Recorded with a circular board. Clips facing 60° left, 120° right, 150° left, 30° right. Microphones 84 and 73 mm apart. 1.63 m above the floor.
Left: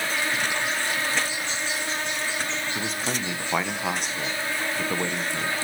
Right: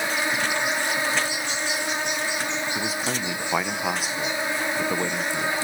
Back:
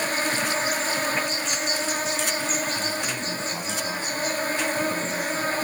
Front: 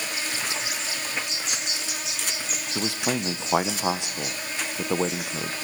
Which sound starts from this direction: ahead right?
A man speaking, at 2.8 s.